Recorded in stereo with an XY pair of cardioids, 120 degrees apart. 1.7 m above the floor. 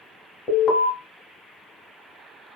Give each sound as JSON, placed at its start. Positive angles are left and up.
{"t": 0.5, "sound": "an alarm", "azimuth_deg": 55, "distance_m": 1.4}